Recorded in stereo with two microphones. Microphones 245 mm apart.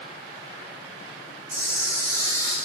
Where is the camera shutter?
10° left (ahead or behind), 3 m.